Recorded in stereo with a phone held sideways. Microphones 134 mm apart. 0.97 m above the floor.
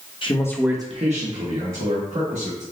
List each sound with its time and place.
0.2 s a man speaking: 40° left (ahead or behind), 0.9 m; by 2.6 s 85° right, 3 m